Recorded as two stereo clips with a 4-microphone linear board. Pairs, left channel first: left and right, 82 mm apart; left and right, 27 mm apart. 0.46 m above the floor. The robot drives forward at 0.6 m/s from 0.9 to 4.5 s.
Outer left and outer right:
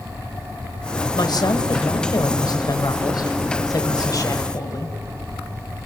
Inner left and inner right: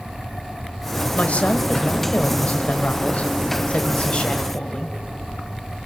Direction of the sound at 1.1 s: 60° left (ahead or behind).